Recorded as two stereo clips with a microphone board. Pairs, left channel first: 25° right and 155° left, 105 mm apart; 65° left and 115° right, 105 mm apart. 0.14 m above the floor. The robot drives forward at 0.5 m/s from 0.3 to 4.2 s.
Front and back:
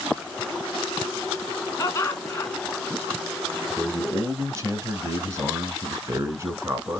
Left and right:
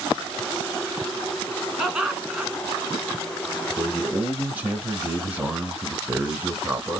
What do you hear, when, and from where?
1.8 s laughter: 30° right, 1.9 m; by 2.5 s 50° right, 1.8 m
3.8 s a man speaking: 170° right, 1.1 m; by 7.0 s 175° right, 1.2 m